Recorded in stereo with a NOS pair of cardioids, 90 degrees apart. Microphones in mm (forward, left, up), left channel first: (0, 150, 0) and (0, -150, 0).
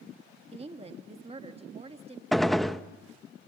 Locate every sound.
0.5 s a woman speaking: 20° right, 1.5 m
2.3 s a gunshot: straight ahead, 0.8 m